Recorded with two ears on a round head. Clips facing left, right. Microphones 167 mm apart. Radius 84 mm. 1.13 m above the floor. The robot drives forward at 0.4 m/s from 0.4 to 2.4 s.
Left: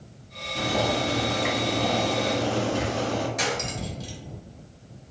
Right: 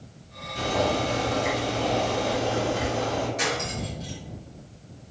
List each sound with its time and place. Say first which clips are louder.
0.6 s boiling: right 1 dB; 60° left (ahead or behind), 1.2 m; by 3.3 s 75° left (ahead or behind), 1.0 m
3.4 s cutlery clinking: even; 65° left (ahead or behind), 1.0 m